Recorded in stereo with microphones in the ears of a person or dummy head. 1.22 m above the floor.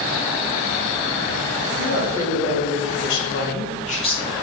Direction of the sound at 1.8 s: 75° left (ahead or behind).